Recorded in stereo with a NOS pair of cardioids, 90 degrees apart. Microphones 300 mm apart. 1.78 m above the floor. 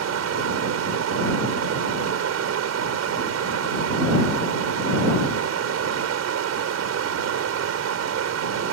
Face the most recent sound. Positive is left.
turn(degrees=-60)